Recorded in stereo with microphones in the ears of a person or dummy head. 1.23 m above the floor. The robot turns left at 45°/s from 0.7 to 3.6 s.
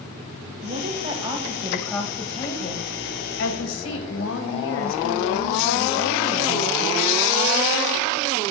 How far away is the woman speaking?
About 1.6 m.